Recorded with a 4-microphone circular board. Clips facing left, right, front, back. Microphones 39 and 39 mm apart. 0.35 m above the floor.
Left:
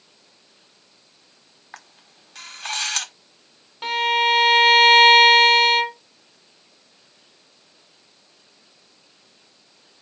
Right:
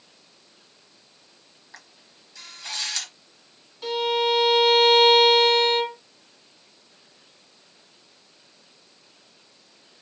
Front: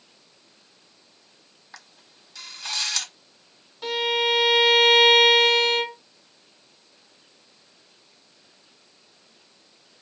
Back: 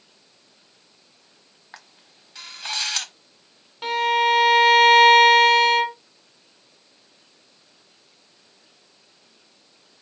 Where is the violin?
130° left, 1.1 m.